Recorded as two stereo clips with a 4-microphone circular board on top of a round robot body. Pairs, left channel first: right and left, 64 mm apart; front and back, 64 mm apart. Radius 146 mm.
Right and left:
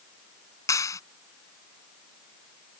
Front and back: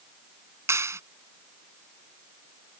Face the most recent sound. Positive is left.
turn(degrees=-130)